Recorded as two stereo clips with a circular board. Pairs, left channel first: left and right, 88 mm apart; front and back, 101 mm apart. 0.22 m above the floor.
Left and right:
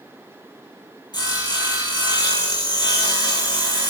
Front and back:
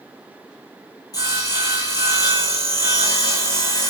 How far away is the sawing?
About 2.5 m.